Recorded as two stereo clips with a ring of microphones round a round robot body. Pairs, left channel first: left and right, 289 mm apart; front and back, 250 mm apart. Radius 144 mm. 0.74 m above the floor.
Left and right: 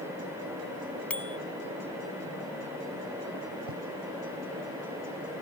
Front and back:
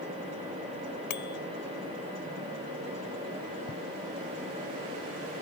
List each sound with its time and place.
1.1 s a bicycle bell: 5° left
3.7 s writing: 60° right